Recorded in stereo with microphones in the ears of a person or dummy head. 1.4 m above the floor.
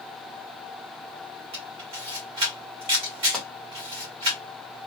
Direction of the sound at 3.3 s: 5° left (ahead or behind).